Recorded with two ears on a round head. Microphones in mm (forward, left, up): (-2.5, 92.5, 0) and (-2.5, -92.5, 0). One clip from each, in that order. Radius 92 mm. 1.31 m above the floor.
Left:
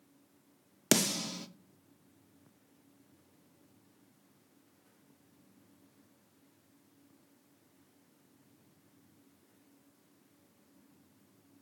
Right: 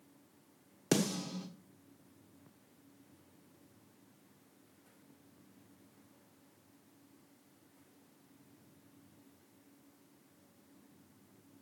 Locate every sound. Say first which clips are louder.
0.9 s a snare drum: left 4 dB; 65° left (ahead or behind), 0.9 m